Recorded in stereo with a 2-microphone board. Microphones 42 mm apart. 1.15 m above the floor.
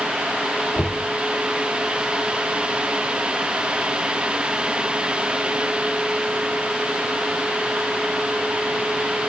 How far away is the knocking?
About 2.5 m.